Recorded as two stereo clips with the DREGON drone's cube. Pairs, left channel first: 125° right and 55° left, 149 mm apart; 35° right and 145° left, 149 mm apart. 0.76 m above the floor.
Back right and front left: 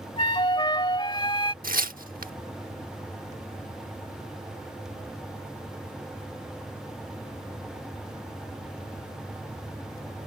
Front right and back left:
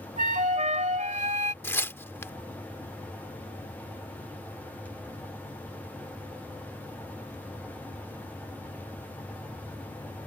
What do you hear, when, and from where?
0.2 s a flute: straight behind
1.6 s tearing paper: 40° left